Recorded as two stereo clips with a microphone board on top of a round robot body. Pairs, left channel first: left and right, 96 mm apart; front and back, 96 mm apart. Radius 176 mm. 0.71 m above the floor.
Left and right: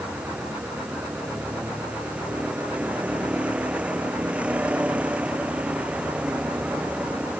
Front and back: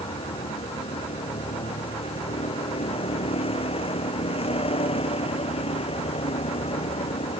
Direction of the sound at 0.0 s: 10° right.